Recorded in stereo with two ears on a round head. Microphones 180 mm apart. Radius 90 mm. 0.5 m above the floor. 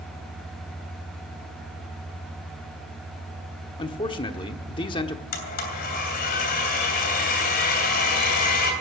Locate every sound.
3.8 s a man speaking: 25° left (ahead or behind), 1.0 m
5.3 s a blender: 50° left (ahead or behind), 3 m